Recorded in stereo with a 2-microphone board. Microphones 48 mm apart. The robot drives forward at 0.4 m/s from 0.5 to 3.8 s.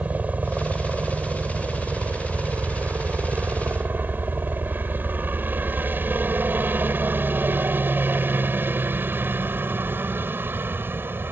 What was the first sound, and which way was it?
A helicopter, 35° right (ahead or behind).